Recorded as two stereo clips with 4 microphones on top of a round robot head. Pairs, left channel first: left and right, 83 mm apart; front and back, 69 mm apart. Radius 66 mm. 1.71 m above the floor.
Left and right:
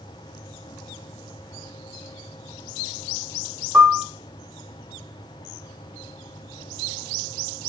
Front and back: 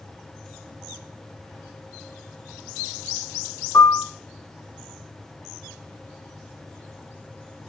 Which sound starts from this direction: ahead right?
A piano, at 3.7 s.